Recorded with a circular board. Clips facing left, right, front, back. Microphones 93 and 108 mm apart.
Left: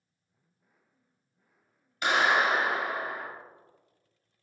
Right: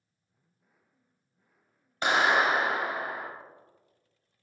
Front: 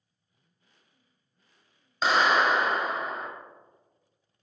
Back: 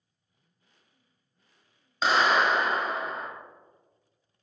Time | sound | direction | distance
2.0 | a clap | 85° right | 1.1 m